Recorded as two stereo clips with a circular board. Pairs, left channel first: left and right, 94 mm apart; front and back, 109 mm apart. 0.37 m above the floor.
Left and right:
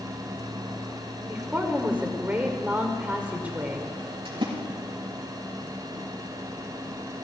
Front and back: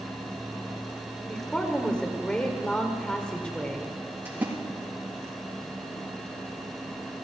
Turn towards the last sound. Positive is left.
turn(degrees=-110)